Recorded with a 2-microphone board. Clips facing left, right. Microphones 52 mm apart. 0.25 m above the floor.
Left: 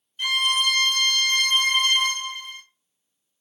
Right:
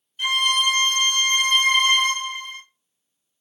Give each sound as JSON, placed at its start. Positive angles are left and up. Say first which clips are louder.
{"t": 0.2, "sound": "a violin", "louder": "right 2 dB", "side_deg": -5, "distance_m": 0.9}